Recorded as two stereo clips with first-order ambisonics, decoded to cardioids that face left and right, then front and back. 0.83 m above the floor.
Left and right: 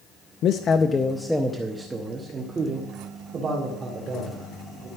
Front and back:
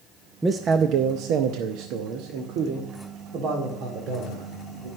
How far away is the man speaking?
About 0.5 m.